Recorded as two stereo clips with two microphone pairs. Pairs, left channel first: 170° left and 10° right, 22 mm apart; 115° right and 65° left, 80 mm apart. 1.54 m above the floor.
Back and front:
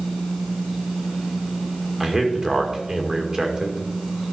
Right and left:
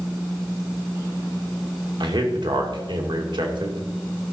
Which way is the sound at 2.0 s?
55° left.